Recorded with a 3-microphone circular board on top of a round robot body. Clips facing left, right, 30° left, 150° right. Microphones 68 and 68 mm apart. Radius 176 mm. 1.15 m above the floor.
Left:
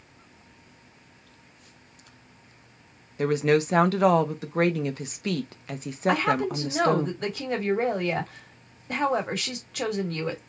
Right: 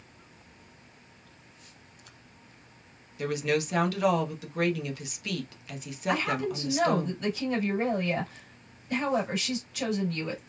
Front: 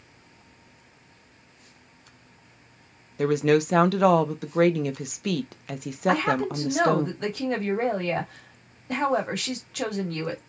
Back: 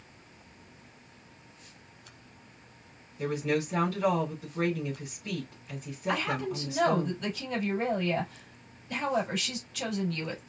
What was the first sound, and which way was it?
A woman speaking, 40° left.